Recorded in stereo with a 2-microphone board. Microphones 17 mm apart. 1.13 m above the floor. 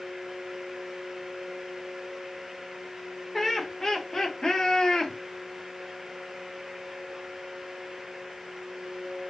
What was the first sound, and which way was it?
Laughter, 10° left (ahead or behind).